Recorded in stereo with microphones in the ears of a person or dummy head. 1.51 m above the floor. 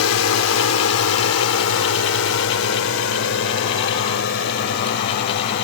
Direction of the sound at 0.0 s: 80° left.